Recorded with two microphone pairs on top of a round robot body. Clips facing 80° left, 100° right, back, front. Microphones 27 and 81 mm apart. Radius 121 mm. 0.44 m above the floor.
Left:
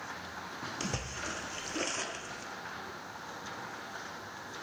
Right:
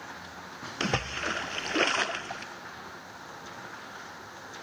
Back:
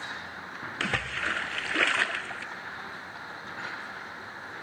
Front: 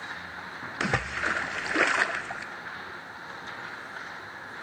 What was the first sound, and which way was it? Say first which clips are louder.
A splash: right 10 dB, front 3 dB; 70° right.